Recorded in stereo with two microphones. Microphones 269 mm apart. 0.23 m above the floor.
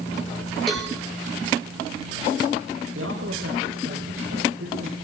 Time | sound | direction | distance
0.7 | a cowbell | centre (ahead or behind) | 8.5 m
3.0 | a man speaking | 55° right (ahead or behind) | 6.5 m